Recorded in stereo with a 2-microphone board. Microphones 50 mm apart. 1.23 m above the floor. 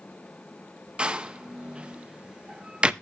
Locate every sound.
1.0 s a door slam: 20° right (ahead or behind), 0.6 m